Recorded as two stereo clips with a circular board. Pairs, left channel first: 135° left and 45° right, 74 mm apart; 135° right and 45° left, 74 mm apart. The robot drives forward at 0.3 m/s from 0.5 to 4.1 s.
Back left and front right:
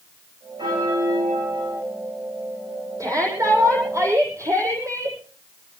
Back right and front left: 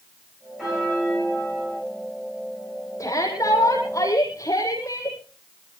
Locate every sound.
0.6 s a bell: 40° right, 8.5 m
3.0 s a shout: 90° right, 8.5 m